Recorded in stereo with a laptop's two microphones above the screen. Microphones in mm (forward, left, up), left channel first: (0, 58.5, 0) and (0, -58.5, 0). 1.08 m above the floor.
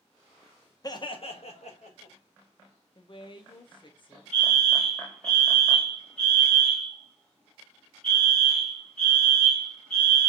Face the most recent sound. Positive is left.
turn(degrees=5)  # may be behind; listen again after turning